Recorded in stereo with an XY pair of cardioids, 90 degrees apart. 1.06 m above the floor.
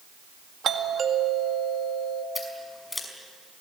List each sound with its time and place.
0.6 s a doorbell: 65° right, 2 m
2.4 s scissors: 15° left, 5.5 m